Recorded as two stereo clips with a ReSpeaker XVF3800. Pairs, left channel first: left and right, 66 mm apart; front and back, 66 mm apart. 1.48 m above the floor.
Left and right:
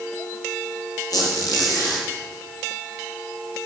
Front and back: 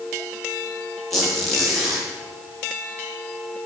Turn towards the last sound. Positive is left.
turn(degrees=85)